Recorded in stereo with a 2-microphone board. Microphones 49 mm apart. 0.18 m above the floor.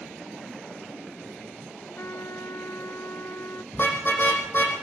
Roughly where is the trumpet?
Left.